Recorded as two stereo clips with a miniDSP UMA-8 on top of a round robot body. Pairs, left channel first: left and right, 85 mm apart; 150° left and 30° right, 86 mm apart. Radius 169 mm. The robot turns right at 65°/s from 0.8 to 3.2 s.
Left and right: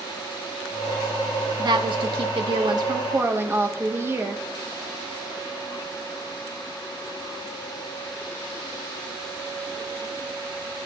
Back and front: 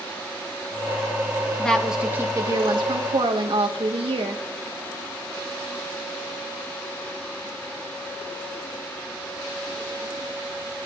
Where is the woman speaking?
135° right, 1.7 m; by 4.4 s 30° right, 1.7 m.